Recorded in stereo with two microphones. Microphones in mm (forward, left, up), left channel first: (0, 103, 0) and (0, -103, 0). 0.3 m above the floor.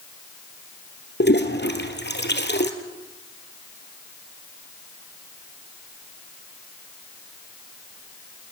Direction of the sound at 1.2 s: 60° left (ahead or behind).